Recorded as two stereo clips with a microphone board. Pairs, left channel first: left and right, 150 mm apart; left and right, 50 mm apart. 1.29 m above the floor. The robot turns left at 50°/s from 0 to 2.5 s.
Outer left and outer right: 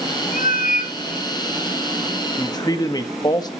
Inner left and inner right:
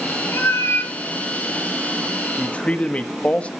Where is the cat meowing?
95° left, 2.5 m; by 1.0 s 65° left, 2.5 m.